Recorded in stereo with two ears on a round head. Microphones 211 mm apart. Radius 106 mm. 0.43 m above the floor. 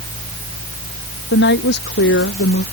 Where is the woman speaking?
45° left (ahead or behind).